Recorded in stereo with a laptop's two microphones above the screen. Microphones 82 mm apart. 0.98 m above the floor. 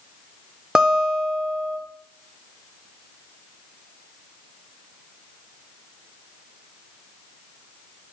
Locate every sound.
0.8 s a guitar: 10° right (ahead or behind), 0.6 m